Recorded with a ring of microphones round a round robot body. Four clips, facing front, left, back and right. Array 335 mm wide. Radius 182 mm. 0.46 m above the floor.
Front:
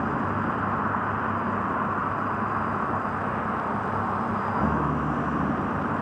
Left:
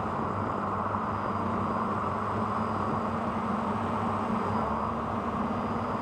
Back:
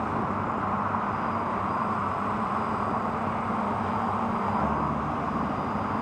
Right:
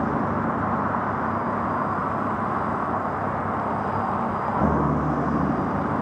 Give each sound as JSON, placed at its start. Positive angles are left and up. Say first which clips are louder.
{"t": 0.0, "sound": "a vehicle", "louder": "right 7 dB, front 2 dB", "azimuth_deg": -75}